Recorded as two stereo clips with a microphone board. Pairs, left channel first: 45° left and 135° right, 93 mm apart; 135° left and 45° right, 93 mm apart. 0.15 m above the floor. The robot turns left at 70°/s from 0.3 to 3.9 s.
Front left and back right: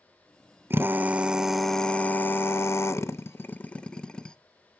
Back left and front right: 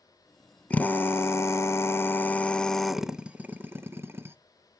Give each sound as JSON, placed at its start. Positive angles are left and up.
{"t": 0.7, "sound": "a drill", "azimuth_deg": -160, "distance_m": 0.5}